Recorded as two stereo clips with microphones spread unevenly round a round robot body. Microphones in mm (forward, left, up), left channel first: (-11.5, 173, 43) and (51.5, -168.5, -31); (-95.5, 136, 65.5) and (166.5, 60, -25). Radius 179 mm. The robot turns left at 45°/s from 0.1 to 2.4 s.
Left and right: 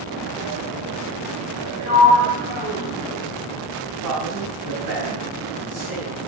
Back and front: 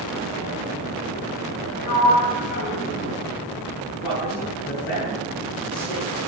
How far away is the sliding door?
About 5 m.